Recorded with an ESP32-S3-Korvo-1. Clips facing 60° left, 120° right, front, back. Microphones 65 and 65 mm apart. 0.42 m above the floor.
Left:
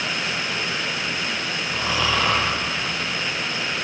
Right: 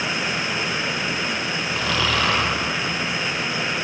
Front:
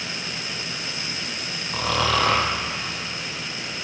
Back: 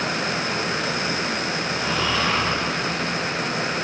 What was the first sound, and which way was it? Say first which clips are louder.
Snoring: even, front 4 dB; 10° right.